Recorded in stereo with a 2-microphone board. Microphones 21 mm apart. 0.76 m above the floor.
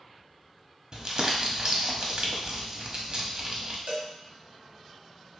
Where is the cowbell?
60° right (ahead or behind), 1.3 m.